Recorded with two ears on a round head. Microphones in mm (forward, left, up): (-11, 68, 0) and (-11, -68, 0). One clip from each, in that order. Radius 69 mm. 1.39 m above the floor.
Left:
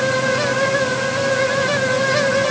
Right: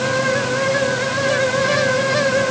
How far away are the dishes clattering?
I don't hear dishes clattering.